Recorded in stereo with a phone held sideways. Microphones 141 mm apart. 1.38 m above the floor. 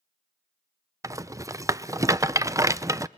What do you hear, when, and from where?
1.0 s a rattle: 20° right (ahead or behind), 0.5 m